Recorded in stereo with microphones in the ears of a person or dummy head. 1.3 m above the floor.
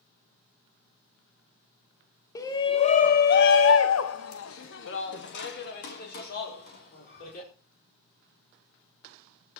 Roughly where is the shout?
Centre.